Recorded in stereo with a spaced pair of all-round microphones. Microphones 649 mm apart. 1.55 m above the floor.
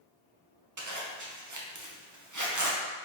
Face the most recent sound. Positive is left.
turn(degrees=-30)  # may be behind; listen again after turning